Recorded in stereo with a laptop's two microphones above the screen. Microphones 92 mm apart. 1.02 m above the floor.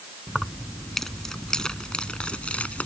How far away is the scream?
I don't hear a scream.